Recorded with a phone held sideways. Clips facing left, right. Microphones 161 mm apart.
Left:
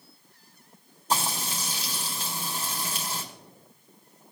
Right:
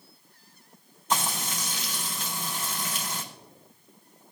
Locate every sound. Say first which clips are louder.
1.1 s frying: even; 35° left (ahead or behind), 3.5 m